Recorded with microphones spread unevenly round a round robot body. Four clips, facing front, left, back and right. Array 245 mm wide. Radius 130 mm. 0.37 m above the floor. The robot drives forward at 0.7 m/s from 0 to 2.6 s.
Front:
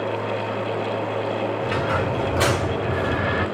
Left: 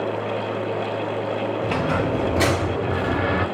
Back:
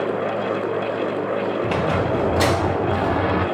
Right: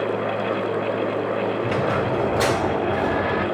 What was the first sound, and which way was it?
A squeak, 130° left.